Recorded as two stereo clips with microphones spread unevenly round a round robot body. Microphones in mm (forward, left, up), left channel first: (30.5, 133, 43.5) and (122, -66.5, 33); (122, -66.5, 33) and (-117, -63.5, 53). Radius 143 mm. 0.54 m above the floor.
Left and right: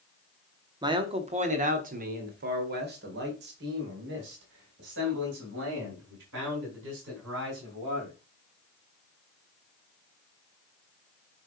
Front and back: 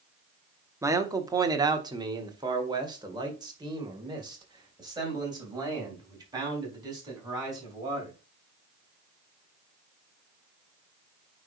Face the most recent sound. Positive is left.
turn(degrees=-105)